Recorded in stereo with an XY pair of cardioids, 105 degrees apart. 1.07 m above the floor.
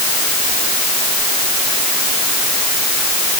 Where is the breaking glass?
I don't hear breaking glass.